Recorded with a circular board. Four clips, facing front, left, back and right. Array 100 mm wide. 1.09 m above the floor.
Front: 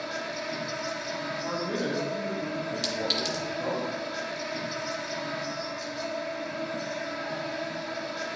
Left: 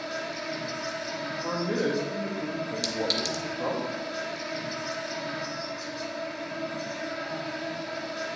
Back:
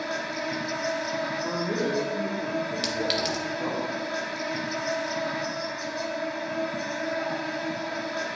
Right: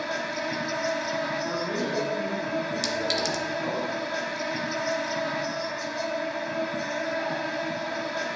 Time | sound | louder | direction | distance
0.0 | an insect | right 4 dB, back 3 dB | 120° right | 0.7 m
1.4 | a man speaking | left 1 dB, back 1 dB | 85° left | 1.7 m
2.8 | a clink | right 2 dB, back 3 dB | 165° right | 0.7 m